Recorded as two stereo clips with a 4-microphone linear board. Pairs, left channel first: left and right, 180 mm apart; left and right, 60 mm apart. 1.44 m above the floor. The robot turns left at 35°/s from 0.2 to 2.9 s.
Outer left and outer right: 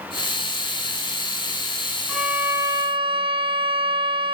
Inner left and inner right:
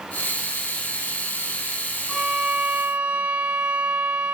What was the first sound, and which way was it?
A violin, centre (ahead or behind).